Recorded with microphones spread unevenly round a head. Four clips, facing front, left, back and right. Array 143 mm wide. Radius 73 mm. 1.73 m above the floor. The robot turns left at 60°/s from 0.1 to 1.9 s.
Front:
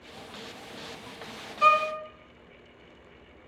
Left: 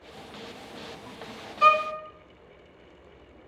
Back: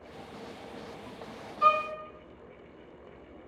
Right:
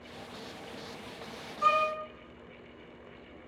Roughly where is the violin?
Ahead left.